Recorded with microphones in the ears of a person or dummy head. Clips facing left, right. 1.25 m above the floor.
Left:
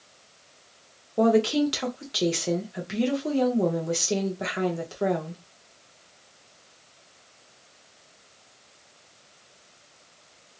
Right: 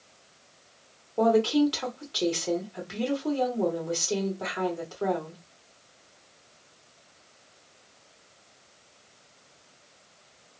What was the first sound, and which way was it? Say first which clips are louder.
A woman speaking: left 1 dB; 25° left (ahead or behind).